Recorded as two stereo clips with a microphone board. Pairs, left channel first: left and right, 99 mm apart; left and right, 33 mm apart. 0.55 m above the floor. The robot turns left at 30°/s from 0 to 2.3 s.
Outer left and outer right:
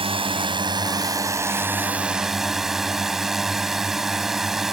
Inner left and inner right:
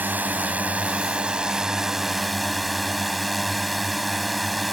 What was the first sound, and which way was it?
A drone, 110° right.